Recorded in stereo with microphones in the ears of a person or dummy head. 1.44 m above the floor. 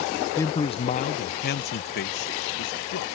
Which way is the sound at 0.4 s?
15° left (ahead or behind).